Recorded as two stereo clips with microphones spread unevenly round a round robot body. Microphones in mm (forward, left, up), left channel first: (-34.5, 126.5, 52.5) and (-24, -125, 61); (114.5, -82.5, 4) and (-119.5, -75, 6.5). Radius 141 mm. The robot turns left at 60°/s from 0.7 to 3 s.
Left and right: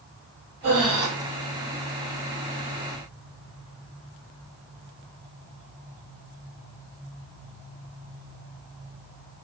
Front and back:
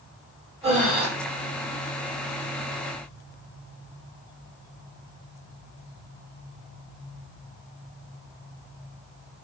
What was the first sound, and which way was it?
Breathing, 115° right.